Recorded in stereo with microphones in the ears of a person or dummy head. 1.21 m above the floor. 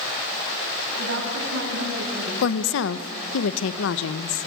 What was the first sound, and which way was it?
A woman speaking, 75° right (ahead or behind).